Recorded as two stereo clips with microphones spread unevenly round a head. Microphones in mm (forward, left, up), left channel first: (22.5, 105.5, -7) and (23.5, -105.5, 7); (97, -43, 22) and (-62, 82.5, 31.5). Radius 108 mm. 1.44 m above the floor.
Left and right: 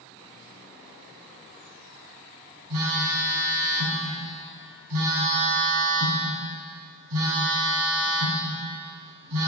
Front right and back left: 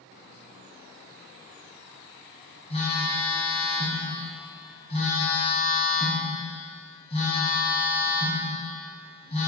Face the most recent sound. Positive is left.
turn(degrees=-105)